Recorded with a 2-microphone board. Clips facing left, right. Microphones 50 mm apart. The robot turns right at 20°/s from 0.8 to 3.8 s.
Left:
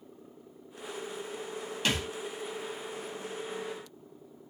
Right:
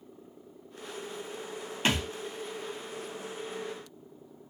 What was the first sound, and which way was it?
A thud, 30° right (ahead or behind).